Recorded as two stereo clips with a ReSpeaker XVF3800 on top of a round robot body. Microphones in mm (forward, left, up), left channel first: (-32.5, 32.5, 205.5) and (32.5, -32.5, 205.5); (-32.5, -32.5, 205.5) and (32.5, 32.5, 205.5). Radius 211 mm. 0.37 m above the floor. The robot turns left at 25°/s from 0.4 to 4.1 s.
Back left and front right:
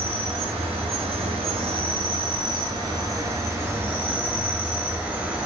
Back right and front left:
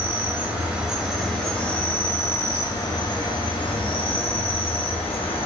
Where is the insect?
25° right, 0.9 m; by 5.5 s 115° right, 0.9 m.